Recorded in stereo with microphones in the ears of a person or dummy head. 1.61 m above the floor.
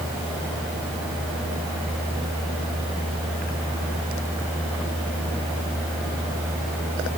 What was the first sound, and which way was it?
Only background noise.